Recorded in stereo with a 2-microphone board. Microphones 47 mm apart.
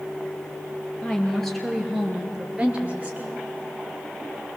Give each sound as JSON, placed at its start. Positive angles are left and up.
{"t": 1.0, "sound": "a woman speaking", "side_deg": 15, "distance_m": 3.0}